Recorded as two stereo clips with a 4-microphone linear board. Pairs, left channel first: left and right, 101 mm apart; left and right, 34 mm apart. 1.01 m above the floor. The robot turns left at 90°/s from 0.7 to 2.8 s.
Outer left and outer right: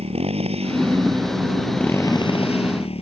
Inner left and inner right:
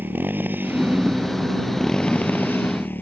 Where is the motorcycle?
95° right; by 3.0 s 75° left.